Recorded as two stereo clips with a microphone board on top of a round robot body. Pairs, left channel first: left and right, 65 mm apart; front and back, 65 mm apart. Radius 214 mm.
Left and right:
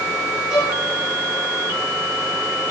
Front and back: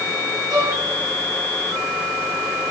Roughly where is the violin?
Behind.